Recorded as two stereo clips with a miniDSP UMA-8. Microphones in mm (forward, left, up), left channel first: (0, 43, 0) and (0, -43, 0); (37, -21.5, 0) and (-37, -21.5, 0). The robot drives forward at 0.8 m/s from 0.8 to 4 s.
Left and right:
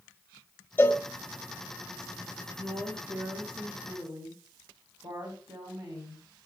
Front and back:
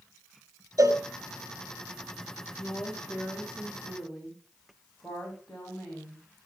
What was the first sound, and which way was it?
A cowbell, 155° left.